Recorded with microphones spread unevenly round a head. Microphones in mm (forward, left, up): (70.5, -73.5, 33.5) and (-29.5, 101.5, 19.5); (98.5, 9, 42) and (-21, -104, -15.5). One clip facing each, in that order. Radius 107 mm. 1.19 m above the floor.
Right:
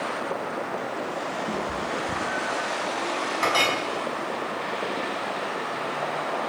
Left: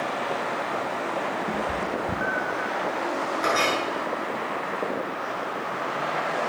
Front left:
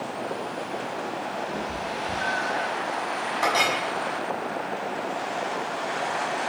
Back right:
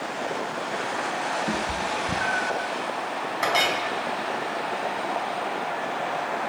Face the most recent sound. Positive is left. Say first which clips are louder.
# even, even
turn(degrees=-70)